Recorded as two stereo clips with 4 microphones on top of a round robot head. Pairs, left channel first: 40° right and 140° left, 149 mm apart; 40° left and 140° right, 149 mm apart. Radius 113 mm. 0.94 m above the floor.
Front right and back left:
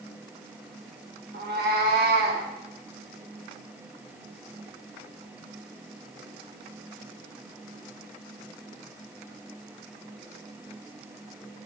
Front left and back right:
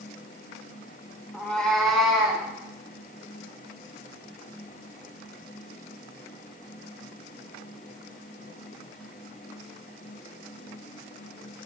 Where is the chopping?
I don't hear chopping.